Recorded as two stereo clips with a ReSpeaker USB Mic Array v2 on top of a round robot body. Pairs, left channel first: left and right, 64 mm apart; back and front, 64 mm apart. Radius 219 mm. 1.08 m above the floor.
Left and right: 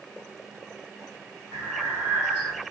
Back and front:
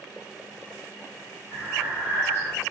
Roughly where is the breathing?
Behind.